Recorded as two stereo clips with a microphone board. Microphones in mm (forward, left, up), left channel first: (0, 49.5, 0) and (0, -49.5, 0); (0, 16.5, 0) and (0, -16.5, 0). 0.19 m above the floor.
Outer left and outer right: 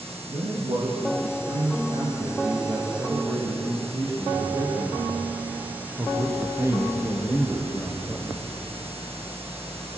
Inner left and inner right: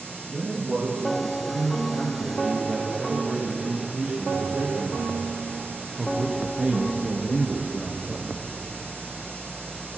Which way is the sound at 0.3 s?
55° right (ahead or behind).